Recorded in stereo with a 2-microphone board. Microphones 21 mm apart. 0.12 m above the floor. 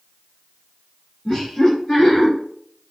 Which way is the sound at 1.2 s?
20° left (ahead or behind).